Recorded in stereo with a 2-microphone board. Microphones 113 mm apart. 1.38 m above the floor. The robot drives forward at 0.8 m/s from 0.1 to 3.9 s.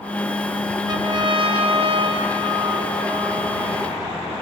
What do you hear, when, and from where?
0.9 s a trumpet: 35° right (ahead or behind), 1.0 m; by 3.9 s 20° right (ahead or behind), 1.9 m